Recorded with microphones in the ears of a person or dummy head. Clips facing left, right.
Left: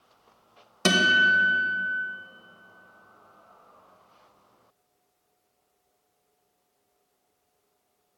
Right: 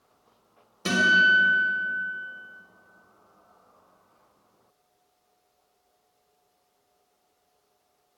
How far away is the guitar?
About 1.3 m.